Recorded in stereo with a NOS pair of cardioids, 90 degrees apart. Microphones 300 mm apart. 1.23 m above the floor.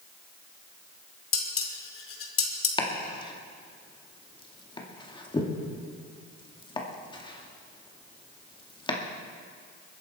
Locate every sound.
1.3 s dishes clattering: 50° left, 2.5 m
2.8 s chopping: 15° left, 2 m